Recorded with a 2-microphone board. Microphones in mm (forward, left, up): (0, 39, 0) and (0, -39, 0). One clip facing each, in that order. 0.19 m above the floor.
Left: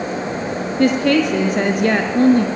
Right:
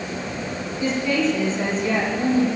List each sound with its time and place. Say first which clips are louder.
0.8 s a woman speaking: left 7 dB; 70° left (ahead or behind), 3 m